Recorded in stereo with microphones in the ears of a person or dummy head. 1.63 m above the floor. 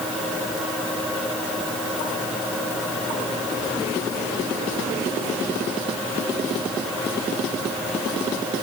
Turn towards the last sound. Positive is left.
No sound to turn to.